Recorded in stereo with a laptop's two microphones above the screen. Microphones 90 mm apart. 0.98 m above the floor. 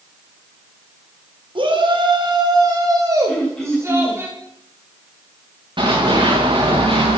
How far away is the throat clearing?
About 8 m.